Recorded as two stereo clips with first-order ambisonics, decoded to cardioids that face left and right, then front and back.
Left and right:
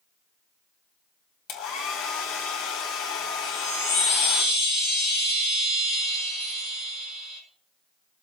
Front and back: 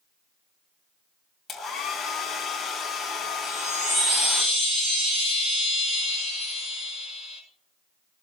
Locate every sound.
1.5 s a hair dryer: 80° left, 3 m
3.4 s a chime: 130° left, 8 m